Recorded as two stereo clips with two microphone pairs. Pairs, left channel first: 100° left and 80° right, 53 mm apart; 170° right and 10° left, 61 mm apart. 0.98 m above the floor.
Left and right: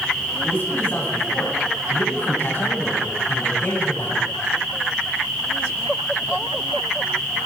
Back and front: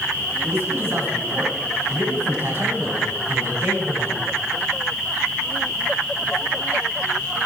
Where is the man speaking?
55° left, 7 m.